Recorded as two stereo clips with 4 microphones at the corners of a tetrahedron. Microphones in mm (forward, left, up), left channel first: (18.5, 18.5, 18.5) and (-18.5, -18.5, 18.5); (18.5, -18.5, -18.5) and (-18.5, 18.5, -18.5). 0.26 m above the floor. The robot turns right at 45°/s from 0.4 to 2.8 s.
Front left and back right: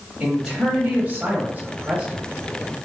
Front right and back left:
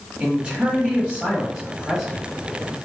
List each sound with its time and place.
0.2 s a man speaking: 155° left, 1.2 m; by 2.2 s 120° right, 1.2 m